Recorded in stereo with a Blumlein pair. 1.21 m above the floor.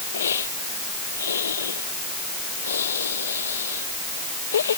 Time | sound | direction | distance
0.1 | a hiss | 70° left | ?